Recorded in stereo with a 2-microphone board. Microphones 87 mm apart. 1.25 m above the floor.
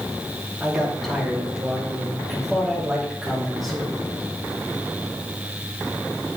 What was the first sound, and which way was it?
A man speaking, centre (ahead or behind).